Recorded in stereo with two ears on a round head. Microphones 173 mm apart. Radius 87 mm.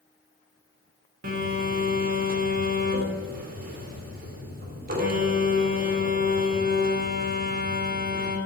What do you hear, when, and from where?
1.2 s a phone buzzing: 50° right (ahead or behind), 2.5 m